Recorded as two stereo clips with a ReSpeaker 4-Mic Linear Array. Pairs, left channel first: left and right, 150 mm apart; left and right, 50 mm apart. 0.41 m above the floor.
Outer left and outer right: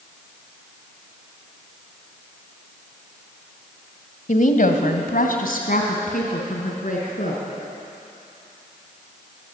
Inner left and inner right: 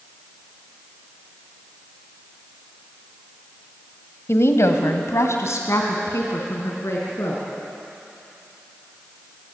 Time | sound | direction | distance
4.3 | a woman speaking | 60° left (ahead or behind) | 1.8 m